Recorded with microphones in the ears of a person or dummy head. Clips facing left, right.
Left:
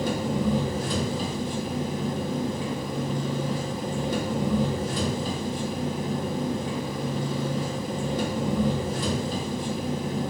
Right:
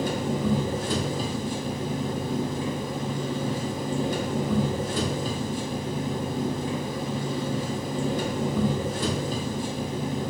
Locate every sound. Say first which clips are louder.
0.0 s an engine running: left 1 dB; 45° right (ahead or behind), 0.9 m